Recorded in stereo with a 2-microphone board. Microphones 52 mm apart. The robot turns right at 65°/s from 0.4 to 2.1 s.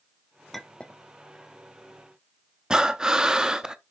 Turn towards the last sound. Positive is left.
turn(degrees=-15)  # may be behind; listen again after turning